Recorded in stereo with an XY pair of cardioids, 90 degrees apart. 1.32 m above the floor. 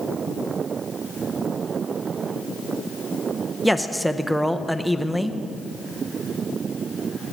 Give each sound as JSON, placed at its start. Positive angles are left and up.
{"t": 3.6, "sound": "a man speaking", "azimuth_deg": -5, "distance_m": 0.8}